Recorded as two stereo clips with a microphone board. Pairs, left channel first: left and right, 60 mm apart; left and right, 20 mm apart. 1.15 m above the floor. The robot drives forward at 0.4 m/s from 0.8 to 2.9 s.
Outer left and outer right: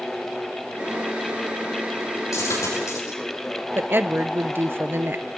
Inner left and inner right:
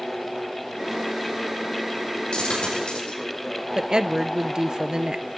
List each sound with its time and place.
2.3 s a dropped coin: 60° left (ahead or behind), 7.5 m
3.8 s a woman speaking: 40° right (ahead or behind), 0.5 m